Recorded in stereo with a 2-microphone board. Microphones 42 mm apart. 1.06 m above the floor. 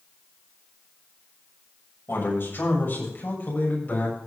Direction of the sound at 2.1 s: 55° left (ahead or behind).